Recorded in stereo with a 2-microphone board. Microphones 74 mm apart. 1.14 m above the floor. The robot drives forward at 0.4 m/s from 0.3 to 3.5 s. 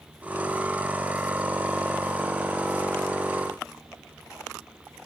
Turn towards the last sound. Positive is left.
No sound to turn to.